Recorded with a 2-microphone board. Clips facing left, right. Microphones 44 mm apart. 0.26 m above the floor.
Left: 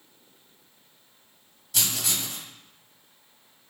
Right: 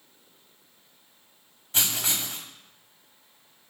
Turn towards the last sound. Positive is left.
turn(degrees=-30)  # may be behind; listen again after turning